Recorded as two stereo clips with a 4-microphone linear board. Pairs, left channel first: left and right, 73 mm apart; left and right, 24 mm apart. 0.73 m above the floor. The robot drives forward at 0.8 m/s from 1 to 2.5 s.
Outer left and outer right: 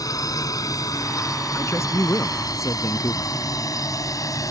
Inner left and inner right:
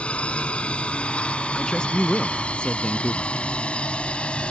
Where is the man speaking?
35° left (ahead or behind); by 3.3 s 40° left (ahead or behind).